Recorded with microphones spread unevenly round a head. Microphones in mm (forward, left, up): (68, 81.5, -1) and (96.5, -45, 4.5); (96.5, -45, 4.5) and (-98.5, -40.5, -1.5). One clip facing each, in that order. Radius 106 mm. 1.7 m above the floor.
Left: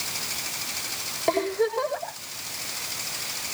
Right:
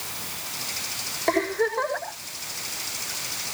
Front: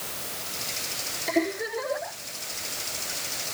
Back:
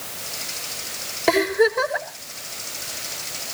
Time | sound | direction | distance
1.3 | a giggle | 175° right | 5 m